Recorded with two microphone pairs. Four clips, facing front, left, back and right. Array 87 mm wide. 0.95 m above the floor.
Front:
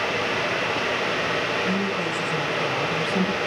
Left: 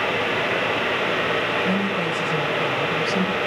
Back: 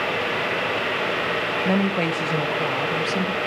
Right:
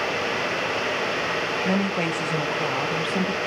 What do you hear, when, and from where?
1.6 s a woman speaking: 160° right, 1.4 m; by 3.4 s 25° right, 0.8 m